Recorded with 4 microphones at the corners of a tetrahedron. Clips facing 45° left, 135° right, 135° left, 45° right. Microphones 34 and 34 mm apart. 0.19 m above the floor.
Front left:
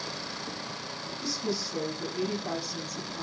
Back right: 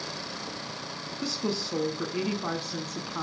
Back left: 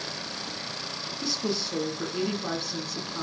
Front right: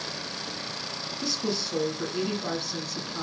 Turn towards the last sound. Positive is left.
turn(degrees=-135)